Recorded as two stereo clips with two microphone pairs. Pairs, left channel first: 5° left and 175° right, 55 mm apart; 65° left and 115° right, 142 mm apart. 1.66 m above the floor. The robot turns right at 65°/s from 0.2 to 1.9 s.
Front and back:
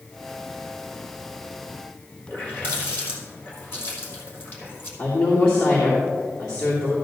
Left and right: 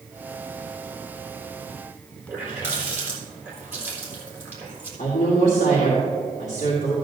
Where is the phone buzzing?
No phone buzzing in this recording.